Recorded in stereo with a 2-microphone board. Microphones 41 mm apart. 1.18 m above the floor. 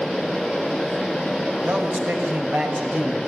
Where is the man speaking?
45° right (ahead or behind), 5.5 m; by 3.3 s 55° right (ahead or behind), 5.5 m.